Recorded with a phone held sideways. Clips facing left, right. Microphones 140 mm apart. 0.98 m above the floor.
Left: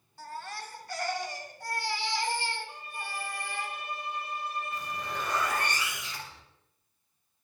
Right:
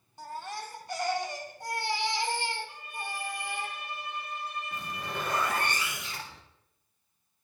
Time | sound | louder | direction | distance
0.2 | a baby crying | right 2 dB | 20° right (ahead or behind) | 1.8 m
2.7 | a violin | right 1 dB | 30° left (ahead or behind) | 4 m
4.7 | a zipper | left 1 dB | 55° right (ahead or behind) | 3.5 m